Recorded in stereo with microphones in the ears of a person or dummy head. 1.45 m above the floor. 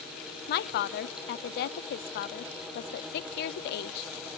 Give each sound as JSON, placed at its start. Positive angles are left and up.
{"t": 0.5, "sound": "a woman speaking", "side_deg": 60, "distance_m": 0.6}